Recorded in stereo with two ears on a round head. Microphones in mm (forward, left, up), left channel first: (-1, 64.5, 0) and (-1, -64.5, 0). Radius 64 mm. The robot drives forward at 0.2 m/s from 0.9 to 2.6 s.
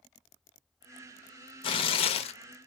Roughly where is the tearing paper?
Left.